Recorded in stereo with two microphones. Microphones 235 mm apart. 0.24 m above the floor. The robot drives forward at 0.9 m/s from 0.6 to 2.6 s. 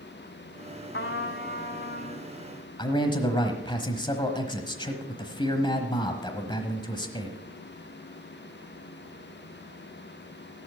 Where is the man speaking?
20° left (ahead or behind), 1.2 m.